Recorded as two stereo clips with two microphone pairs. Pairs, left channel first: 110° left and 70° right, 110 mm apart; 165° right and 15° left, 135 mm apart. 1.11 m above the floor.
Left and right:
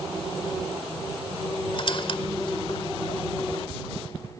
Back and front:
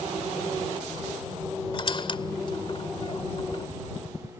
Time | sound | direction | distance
1.7 | a squeak | 145° left | ?